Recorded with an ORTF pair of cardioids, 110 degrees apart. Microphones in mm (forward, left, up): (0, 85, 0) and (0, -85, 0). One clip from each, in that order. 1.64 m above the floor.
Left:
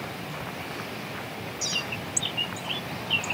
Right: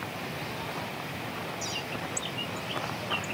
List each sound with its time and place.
1.6 s a bird: 45° left